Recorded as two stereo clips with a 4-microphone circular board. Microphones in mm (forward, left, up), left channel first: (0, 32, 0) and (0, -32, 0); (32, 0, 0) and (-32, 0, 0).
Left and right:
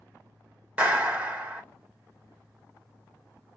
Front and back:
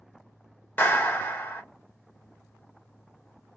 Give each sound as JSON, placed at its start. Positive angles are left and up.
{"t": 0.8, "sound": "a clap", "azimuth_deg": -35, "distance_m": 1.1}